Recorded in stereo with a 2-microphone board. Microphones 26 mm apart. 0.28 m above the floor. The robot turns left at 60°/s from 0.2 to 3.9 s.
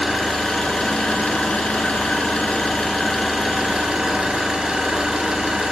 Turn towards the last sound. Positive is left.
turn(degrees=-40)